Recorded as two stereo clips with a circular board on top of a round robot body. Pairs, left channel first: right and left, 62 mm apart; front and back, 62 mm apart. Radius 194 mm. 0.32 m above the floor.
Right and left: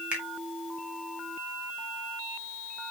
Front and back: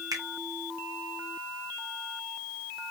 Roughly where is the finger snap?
Behind.